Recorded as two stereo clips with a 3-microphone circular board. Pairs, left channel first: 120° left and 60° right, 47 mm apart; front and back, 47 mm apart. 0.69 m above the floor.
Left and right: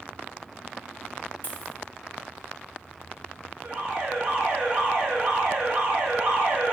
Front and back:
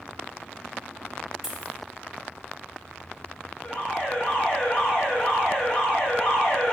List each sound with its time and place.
1.4 s a dropped coin: 100° left, 0.7 m
3.6 s an alarm: 45° right, 1.4 m